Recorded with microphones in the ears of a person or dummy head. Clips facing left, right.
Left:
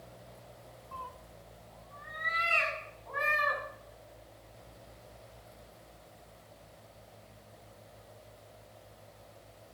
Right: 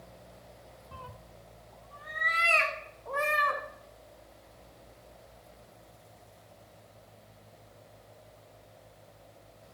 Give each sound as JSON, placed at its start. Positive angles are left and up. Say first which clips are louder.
{"t": 0.9, "sound": "a cat meowing", "louder": "left 2 dB", "side_deg": -15, "distance_m": 0.6}